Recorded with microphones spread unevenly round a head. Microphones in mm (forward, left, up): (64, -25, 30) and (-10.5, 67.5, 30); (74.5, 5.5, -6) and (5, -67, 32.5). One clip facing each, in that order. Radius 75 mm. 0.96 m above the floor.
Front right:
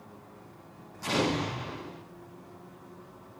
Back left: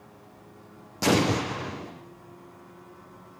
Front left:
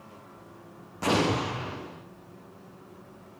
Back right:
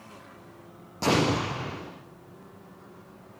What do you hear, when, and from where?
1.0 s an explosion: 160° left, 9 m